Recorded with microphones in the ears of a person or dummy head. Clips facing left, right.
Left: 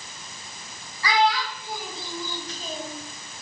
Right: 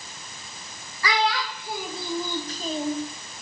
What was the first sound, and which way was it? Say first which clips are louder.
A child speaking: left 3 dB; 60° right (ahead or behind).